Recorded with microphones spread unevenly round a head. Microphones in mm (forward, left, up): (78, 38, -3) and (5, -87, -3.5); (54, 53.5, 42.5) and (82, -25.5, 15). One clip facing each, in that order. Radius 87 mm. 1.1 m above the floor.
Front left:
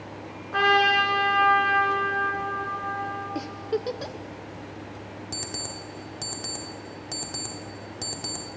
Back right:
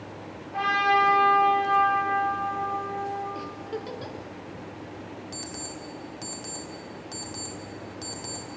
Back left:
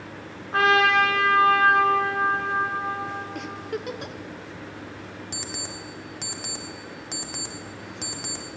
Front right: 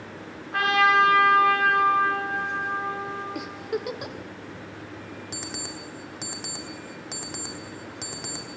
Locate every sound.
0.5 s a trumpet: 65° left, 2.5 m
3.4 s a giggle: 15° left, 0.5 m
5.3 s an alarm clock: 25° left, 1.5 m